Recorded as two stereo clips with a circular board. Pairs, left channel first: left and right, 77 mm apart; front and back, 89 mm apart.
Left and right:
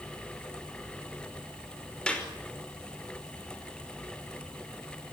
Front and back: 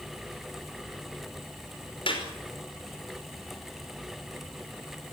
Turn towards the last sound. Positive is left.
turn(degrees=10)